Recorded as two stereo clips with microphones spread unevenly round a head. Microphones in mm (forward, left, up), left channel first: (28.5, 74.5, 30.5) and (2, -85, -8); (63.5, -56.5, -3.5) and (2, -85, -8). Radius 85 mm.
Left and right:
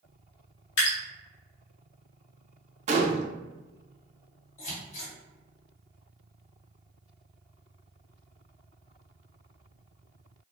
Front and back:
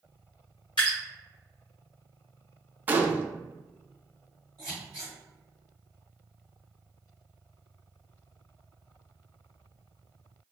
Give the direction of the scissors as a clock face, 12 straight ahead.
8 o'clock.